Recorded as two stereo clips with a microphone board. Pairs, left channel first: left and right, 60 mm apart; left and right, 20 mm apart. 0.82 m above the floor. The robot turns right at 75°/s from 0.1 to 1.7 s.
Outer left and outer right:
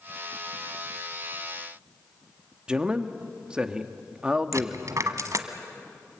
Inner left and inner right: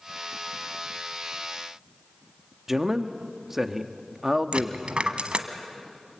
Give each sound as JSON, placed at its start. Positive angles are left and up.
{"t": 2.7, "sound": "a man speaking", "side_deg": -15, "distance_m": 1.1}
{"t": 4.5, "sound": "a dropped coin", "side_deg": -65, "distance_m": 1.3}